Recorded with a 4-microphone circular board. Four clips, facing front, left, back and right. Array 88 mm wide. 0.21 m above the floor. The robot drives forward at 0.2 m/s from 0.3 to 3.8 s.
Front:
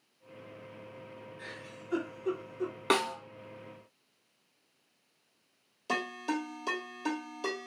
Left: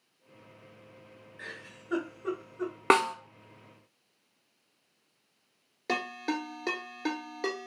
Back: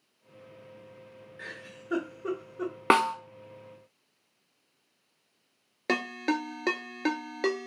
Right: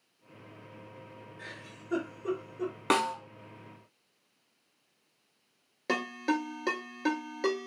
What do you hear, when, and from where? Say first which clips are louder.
1.4 s a giggle: left 4 dB, back 7 dB; 140° left, 2.5 m; by 2.7 s 145° left, 2.5 m
2.9 s a snare drum: left 4 dB, back 6 dB; 140° left, 0.7 m; by 3.1 s 145° left, 0.8 m
5.9 s a ringtone: right 2 dB, back 4 dB; straight behind, 1.2 m